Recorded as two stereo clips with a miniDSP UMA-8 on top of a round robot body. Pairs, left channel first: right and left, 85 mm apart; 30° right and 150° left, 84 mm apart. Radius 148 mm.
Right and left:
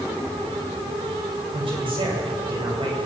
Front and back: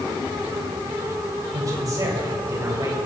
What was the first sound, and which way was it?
A man speaking, 100° left.